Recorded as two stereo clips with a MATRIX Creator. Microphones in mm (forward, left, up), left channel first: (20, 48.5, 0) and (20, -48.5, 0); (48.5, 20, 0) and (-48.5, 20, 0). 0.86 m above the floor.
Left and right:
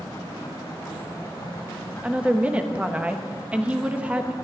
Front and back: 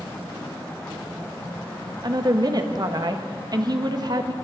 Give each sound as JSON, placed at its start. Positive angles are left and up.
{"t": 2.0, "sound": "a woman speaking", "azimuth_deg": -165, "distance_m": 0.8}